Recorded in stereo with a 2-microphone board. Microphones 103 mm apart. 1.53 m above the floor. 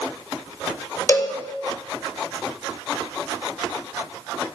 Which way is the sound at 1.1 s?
30° left (ahead or behind).